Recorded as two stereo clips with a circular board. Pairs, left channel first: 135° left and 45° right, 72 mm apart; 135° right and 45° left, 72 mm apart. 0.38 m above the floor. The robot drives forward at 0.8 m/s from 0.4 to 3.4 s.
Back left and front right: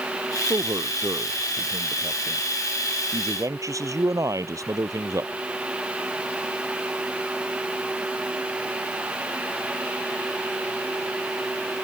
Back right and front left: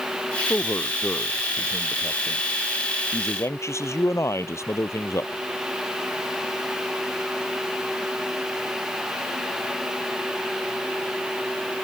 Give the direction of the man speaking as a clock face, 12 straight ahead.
2 o'clock.